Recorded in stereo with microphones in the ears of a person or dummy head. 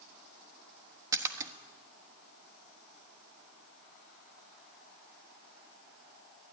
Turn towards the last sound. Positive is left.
turn(degrees=-20)  # may be behind; listen again after turning